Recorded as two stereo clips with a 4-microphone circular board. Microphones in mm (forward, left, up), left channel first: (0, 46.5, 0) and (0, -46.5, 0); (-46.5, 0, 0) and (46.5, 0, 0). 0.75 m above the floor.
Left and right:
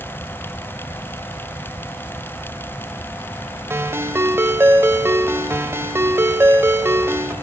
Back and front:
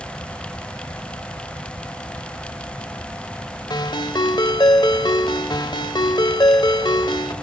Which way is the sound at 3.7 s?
150° right.